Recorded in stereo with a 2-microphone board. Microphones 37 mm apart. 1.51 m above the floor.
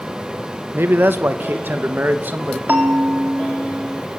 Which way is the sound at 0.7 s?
80° right.